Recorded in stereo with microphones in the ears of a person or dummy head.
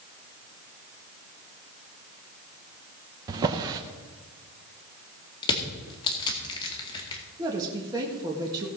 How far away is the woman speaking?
About 1.7 m.